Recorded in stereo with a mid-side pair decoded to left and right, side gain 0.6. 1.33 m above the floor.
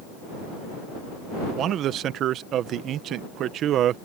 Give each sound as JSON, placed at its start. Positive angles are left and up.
{"t": 1.6, "sound": "a man speaking", "azimuth_deg": -55}